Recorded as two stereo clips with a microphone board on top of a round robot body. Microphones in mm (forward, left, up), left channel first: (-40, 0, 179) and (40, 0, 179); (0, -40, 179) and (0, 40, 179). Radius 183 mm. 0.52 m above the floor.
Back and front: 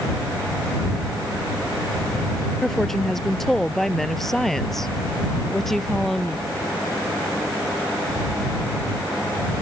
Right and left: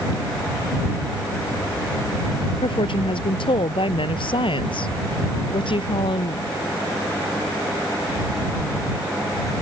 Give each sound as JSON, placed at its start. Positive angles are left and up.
{"t": 2.6, "sound": "a woman speaking", "azimuth_deg": -95}